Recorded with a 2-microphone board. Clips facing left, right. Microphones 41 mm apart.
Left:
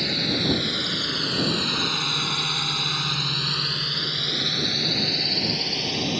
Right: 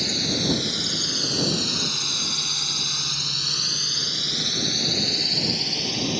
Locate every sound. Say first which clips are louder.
0.0 s a drone: left 1 dB; 20° left (ahead or behind); by 6.2 s 5° left (ahead or behind)